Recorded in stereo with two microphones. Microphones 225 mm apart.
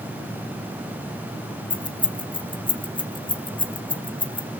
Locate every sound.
1.7 s keys jangling: 20° left (ahead or behind), 0.6 m